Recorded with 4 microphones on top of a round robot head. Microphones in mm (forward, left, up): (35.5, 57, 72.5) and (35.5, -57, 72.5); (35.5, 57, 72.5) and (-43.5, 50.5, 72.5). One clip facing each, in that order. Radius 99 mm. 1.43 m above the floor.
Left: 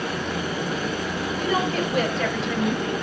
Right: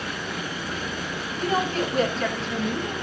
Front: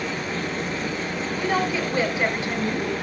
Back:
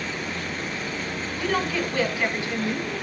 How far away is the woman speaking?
About 7 m.